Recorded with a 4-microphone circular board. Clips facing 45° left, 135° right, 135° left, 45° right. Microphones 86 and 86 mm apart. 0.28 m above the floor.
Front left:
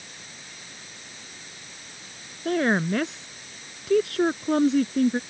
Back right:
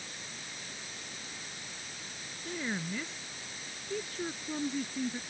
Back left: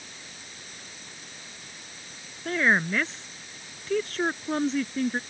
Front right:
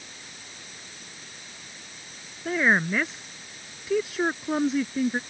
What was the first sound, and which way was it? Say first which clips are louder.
A woman speaking: front left 14 dB, front right 1 dB; 40° left.